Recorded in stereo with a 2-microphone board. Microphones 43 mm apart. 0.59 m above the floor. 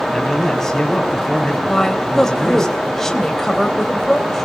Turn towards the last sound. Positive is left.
turn(degrees=10)  # may be behind; listen again after turning